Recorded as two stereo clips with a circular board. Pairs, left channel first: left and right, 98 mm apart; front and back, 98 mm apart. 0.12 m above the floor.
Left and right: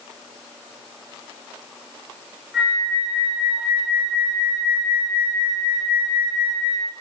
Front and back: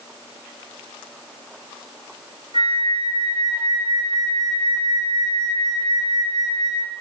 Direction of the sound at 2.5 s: 175° right.